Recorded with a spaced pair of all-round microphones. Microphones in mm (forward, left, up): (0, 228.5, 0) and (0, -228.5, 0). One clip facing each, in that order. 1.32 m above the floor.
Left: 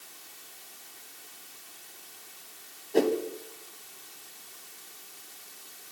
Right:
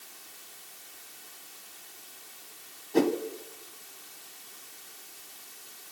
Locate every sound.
2.9 s a whoosh: 20° right (ahead or behind), 1.5 m